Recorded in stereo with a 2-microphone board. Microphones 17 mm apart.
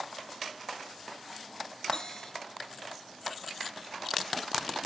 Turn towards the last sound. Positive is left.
turn(degrees=40)  # may be behind; listen again after turning